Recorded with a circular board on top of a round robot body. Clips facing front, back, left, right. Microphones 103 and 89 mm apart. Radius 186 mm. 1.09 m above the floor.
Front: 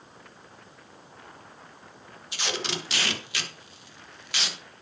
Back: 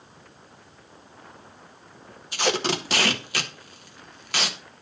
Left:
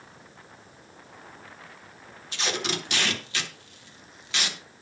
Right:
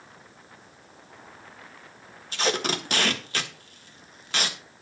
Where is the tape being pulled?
135° right, 1.6 m.